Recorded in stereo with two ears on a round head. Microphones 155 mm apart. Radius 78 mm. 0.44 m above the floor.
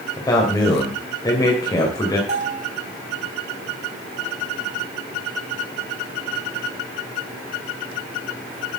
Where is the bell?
40° right (ahead or behind), 4.5 m.